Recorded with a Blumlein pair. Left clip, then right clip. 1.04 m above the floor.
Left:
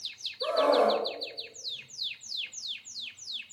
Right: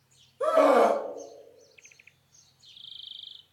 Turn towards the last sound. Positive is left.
turn(degrees=-50)